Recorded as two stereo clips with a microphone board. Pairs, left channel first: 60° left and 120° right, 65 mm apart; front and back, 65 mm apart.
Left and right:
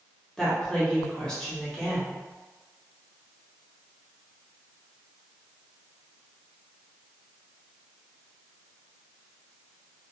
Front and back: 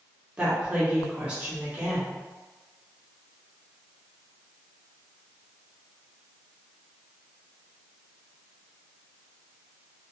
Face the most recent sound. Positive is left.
turn(degrees=130)